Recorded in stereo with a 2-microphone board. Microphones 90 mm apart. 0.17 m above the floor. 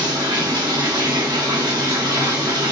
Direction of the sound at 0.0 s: 55° right (ahead or behind).